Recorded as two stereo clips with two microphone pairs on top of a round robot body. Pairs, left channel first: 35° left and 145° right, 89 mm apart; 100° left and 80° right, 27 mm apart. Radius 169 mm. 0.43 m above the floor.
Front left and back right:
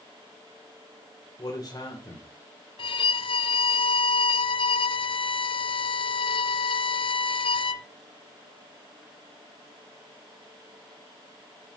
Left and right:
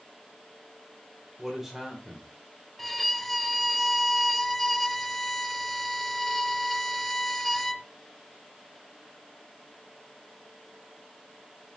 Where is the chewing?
No chewing in this recording.